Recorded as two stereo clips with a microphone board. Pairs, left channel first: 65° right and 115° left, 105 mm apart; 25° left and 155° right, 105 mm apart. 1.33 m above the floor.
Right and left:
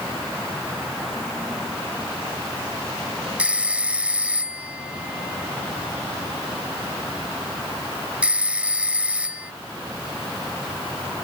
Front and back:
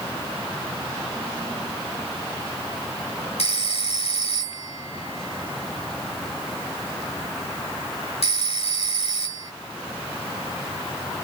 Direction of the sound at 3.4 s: 35° left.